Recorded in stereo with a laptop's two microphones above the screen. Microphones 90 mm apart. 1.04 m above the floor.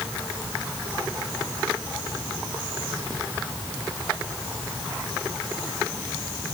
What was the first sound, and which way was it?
Only background noise.